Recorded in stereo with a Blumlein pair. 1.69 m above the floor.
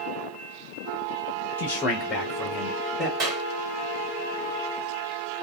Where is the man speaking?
50° left, 0.7 m; by 3.1 s 15° right, 2 m.